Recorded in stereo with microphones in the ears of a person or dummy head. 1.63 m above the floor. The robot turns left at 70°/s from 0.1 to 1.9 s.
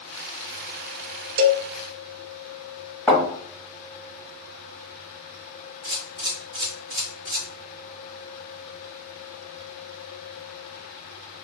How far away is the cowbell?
About 0.5 m.